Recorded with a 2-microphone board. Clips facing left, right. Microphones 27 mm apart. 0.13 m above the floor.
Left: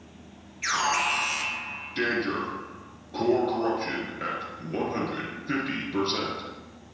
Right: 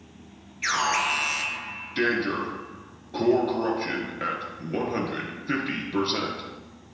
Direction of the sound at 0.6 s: 10° right (ahead or behind).